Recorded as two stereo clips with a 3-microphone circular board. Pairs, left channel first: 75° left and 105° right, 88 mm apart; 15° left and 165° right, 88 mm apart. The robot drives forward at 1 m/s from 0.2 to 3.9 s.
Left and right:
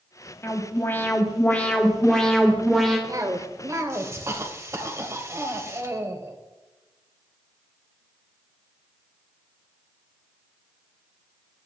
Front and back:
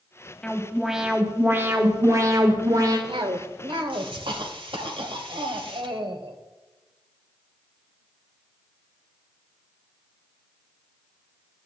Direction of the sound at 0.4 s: 80° left.